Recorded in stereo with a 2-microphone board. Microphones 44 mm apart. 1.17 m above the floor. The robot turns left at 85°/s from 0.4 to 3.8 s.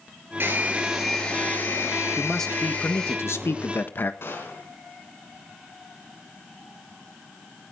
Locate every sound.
0.4 s a hair dryer: 125° right, 6 m; by 3.2 s straight ahead, 6 m
2.2 s a man speaking: 170° right, 1.4 m; by 4.1 s 50° left, 1.4 m
4.2 s a gunshot: 60° left (ahead or behind), 4.5 m